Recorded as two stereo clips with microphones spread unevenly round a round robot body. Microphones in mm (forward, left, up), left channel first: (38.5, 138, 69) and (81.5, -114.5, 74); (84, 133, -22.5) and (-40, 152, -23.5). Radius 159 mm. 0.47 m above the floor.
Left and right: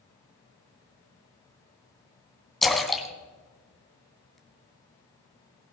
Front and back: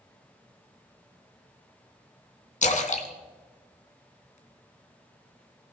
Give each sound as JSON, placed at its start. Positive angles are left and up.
{"t": 2.6, "sound": "a splash", "azimuth_deg": 10, "distance_m": 2.5}